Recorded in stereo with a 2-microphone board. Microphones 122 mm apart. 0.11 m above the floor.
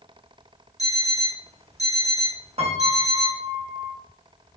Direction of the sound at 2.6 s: 55° right (ahead or behind).